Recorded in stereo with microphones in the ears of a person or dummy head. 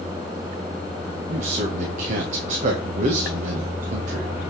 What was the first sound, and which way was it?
A man speaking, 45° right (ahead or behind).